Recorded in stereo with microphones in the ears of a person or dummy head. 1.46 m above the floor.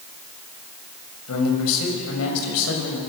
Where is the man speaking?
85° left, 6.5 m; by 3.0 s 75° left (ahead or behind), 5.5 m.